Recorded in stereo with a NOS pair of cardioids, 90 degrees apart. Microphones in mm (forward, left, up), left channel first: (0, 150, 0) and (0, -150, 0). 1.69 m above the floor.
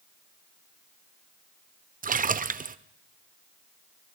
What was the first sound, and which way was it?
A splash, 30° right.